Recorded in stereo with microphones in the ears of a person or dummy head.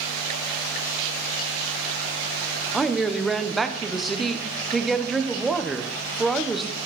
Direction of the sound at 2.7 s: 5° right (ahead or behind).